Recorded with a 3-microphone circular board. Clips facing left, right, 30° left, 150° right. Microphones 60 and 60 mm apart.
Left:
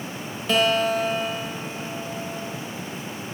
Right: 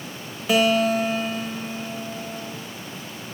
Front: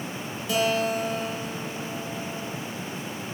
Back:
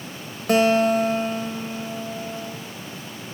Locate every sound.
0.5 s a guitar: 170° right, 0.8 m